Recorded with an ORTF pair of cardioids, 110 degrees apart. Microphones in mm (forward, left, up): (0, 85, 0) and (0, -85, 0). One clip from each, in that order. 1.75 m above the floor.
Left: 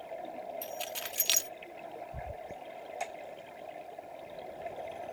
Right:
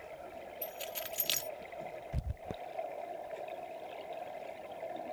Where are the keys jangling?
25° left.